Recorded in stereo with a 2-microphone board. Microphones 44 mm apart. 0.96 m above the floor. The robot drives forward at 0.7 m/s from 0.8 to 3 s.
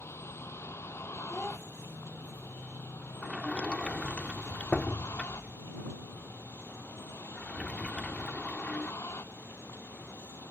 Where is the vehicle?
85° left; by 10.5 s 80° left.